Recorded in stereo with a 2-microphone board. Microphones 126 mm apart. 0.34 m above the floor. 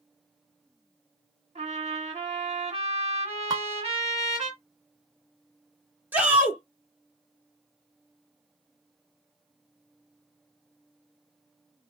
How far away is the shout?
About 1.3 m.